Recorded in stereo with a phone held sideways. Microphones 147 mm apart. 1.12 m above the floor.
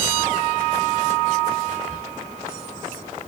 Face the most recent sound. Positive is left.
turn(degrees=-65)  # may be behind; listen again after turning